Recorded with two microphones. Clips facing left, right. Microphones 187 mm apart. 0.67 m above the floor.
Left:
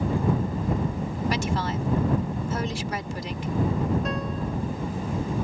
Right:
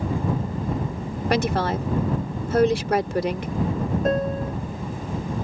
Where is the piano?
45° right (ahead or behind).